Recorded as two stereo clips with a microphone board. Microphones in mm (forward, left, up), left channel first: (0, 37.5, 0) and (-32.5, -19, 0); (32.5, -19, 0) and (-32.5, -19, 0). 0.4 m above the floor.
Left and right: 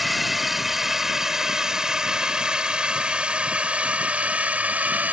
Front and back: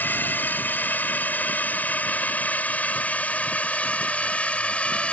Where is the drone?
30° right; by 5.1 s 65° right.